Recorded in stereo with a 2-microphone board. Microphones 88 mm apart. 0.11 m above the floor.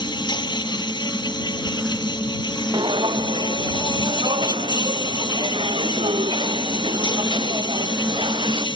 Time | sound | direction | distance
0.0 | an insect | 60° left (ahead or behind) | ?
2.7 | footsteps | 65° right (ahead or behind) | ?